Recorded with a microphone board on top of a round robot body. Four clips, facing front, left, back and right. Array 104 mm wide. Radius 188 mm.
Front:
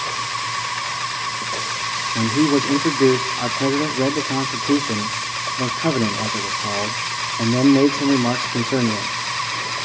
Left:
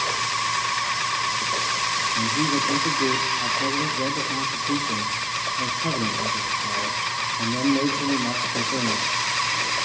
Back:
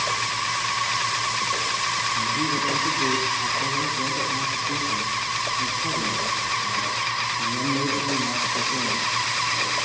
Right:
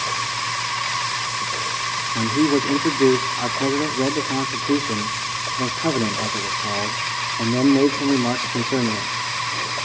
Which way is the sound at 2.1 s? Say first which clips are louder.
Right 8 dB, front 12 dB; 30° right.